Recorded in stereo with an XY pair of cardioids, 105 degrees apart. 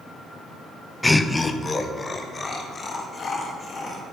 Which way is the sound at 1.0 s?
10° left.